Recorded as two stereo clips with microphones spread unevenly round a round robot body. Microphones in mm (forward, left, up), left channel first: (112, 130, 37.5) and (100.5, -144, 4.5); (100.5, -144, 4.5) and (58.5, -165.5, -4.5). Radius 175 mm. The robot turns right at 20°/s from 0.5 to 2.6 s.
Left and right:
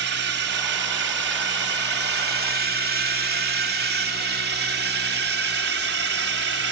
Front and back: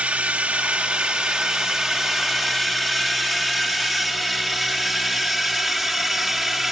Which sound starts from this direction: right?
A drone, at 0.0 s.